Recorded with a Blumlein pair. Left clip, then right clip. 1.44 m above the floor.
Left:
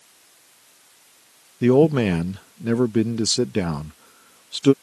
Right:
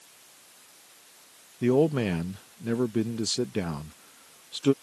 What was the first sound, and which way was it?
A man speaking, 70° left.